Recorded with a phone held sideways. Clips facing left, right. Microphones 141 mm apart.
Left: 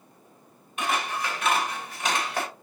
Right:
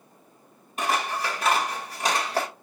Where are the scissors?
35° right (ahead or behind), 1.7 m.